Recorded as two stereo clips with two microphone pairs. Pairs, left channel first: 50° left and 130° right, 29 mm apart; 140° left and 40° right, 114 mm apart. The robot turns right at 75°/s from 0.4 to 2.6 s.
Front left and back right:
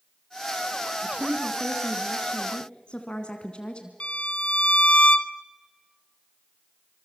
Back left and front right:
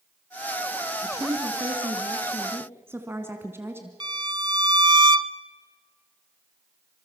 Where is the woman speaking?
100° right, 2.0 m; by 3.9 s 20° left, 2.0 m.